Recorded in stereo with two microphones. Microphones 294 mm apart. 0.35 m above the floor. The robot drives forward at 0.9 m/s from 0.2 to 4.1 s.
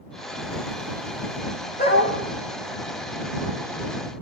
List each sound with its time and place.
1.8 s a dog barking: 30° left (ahead or behind), 6 m